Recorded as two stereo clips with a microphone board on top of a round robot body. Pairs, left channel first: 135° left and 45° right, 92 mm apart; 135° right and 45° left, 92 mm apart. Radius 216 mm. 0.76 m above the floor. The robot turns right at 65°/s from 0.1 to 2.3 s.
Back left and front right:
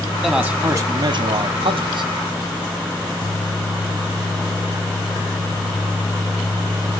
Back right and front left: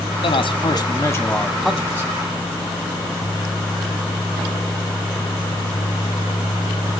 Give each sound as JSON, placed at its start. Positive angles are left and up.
{"t": 0.2, "sound": "a man speaking", "azimuth_deg": -130, "distance_m": 2.5}